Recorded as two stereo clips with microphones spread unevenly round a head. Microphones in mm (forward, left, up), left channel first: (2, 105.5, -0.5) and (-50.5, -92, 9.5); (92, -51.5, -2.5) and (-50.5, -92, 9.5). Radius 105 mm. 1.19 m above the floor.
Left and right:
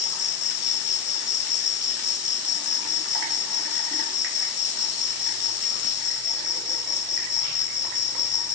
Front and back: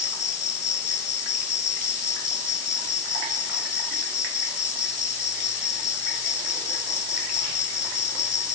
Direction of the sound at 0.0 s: 50° left.